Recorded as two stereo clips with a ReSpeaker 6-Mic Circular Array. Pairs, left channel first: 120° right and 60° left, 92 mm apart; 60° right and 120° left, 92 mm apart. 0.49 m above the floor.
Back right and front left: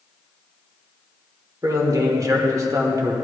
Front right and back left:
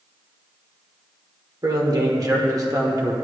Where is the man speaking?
95° left, 1.2 m.